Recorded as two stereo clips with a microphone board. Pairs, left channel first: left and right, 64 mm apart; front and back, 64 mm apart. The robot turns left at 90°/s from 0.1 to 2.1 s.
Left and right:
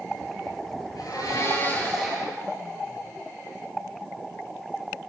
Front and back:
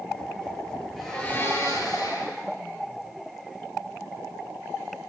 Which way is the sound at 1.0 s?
95° left.